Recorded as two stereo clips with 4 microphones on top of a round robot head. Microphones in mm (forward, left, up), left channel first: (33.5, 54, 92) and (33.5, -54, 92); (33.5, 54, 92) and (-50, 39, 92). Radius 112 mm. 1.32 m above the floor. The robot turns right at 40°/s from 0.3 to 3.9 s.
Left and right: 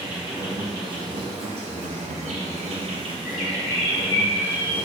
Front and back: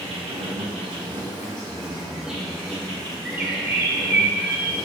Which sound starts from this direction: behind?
An insect, at 0.0 s.